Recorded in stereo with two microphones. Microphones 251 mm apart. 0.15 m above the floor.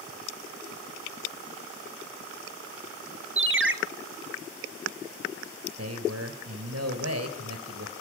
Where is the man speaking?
60° right (ahead or behind), 3 m.